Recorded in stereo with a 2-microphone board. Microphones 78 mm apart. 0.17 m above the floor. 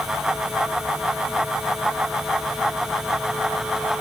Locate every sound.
Only background noise.